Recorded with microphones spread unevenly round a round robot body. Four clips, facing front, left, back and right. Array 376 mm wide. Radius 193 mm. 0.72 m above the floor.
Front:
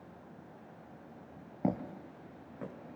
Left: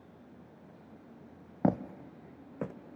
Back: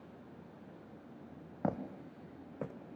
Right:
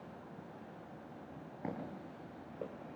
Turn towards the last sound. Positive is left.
turn(degrees=110)